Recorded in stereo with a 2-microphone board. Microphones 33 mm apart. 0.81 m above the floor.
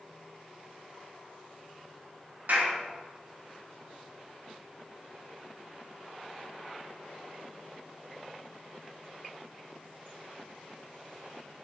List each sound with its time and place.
2.5 s a clap: 65° right (ahead or behind), 1.2 m